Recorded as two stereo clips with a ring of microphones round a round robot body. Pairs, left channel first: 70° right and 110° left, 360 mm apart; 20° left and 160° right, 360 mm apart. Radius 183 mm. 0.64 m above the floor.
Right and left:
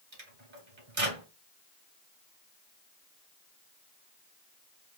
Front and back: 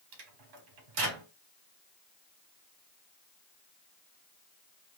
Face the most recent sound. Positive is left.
turn(degrees=175)